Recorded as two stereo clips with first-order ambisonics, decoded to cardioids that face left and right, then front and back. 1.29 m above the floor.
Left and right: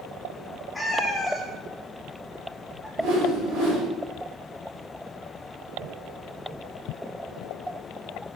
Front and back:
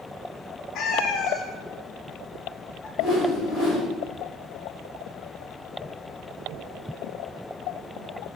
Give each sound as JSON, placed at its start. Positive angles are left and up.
{"t": 0.8, "sound": "a cat meowing", "azimuth_deg": 5, "distance_m": 1.0}
{"t": 3.0, "sound": "a whoosh", "azimuth_deg": -60, "distance_m": 2.0}